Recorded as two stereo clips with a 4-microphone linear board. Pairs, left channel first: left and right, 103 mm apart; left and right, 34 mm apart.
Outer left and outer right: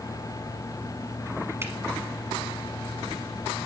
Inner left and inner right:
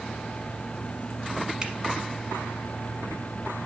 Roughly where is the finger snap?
Right.